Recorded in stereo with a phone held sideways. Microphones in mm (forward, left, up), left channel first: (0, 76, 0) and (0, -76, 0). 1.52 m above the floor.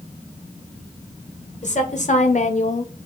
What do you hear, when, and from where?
1.6 s a woman speaking: 50° left (ahead or behind), 1.2 m; by 2.9 s 55° left (ahead or behind), 0.5 m